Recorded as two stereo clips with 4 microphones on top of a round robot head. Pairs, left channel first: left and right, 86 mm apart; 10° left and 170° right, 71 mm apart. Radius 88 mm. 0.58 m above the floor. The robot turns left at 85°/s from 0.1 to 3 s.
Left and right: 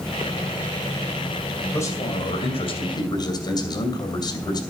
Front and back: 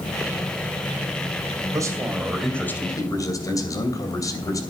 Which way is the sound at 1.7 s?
155° left.